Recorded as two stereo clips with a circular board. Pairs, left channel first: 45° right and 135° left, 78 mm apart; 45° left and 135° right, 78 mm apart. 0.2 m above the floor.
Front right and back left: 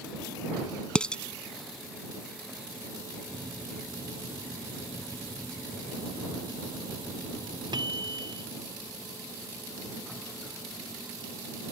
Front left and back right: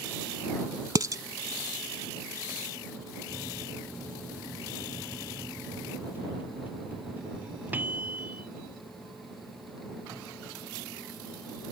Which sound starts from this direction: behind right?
Dishes clattering, at 0.9 s.